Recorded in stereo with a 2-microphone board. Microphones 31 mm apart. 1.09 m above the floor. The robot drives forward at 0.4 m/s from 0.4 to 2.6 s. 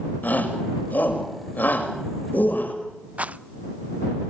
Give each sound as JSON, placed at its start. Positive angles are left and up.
{"t": 0.2, "sound": "a shout", "side_deg": 70, "distance_m": 6.5}
{"t": 3.2, "sound": "a rattle", "side_deg": -50, "distance_m": 0.5}